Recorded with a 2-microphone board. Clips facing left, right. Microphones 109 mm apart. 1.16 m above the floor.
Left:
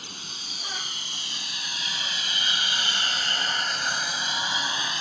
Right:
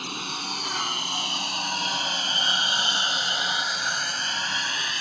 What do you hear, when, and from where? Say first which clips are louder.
0.0 s a lawn mower: right 10 dB; 75° right (ahead or behind); by 5.0 s 25° left (ahead or behind)